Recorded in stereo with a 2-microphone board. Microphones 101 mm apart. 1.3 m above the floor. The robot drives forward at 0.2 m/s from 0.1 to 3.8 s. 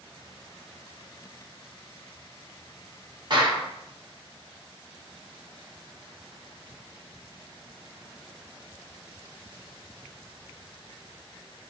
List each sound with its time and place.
3.3 s a clap: 50° right (ahead or behind), 1.1 m